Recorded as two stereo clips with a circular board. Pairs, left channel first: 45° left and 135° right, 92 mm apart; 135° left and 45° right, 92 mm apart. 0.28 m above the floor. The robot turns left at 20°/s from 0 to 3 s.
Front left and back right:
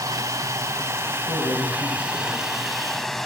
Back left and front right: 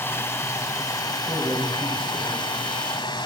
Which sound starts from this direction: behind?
Running water, at 0.0 s.